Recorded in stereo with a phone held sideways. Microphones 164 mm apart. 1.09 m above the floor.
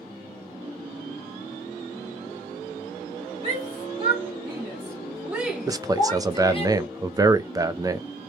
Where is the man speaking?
20° right (ahead or behind), 0.5 m.